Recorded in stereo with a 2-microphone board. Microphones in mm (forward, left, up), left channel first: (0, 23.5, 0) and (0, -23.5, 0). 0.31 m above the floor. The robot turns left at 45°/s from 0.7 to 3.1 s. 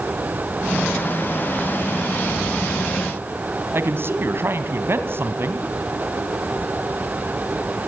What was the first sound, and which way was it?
A man speaking, 50° right (ahead or behind).